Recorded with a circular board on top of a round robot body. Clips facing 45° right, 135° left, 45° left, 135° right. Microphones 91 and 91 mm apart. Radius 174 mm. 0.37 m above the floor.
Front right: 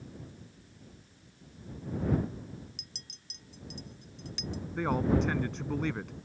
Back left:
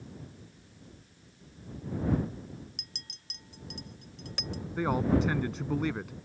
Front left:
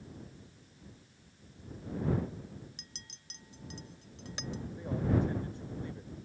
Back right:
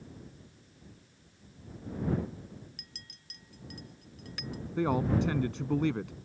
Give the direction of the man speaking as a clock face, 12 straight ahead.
5 o'clock.